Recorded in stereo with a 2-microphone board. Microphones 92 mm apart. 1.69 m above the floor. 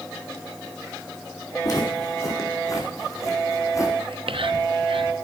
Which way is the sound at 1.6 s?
45° left (ahead or behind).